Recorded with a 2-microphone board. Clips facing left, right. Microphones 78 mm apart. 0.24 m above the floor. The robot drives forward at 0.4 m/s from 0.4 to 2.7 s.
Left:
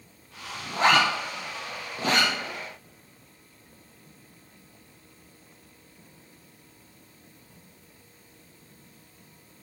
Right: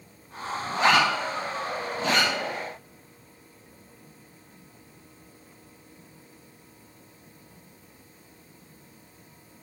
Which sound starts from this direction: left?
A zipper, at 0.7 s.